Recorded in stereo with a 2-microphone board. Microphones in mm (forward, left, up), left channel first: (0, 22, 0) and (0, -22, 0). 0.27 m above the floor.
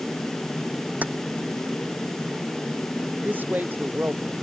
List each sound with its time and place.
1.0 s keys jangling: 40° right (ahead or behind)
3.2 s a man speaking: 45° right (ahead or behind)